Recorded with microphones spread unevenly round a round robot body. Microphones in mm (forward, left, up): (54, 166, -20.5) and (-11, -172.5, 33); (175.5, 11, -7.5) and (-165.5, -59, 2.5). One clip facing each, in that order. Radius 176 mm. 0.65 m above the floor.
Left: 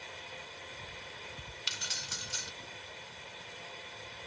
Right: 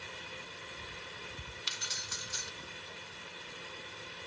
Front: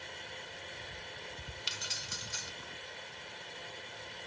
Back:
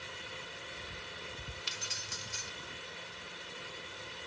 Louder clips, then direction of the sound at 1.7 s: Even, even; 45° left.